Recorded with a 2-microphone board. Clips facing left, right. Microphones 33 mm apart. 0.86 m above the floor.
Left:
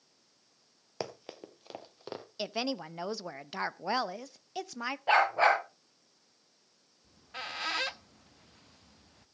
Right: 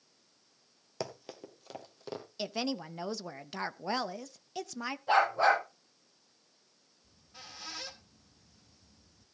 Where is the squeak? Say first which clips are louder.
Left 11 dB; 55° left (ahead or behind), 0.5 m.